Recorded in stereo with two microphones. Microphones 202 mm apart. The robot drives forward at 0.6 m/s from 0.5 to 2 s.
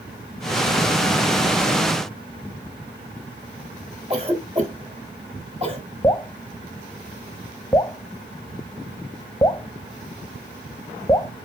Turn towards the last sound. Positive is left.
turn(degrees=15)  # may be behind; listen again after turning